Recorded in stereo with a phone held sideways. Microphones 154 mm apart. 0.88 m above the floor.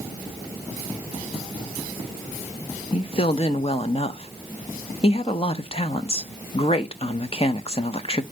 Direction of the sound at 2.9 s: 40° left (ahead or behind).